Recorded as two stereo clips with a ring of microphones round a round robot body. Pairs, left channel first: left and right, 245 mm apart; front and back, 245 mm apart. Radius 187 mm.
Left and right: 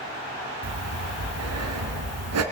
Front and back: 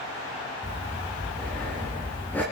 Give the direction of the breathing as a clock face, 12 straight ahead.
3 o'clock.